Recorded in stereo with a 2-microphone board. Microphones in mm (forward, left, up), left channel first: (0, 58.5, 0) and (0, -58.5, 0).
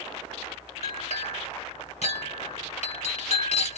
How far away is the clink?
About 1.6 m.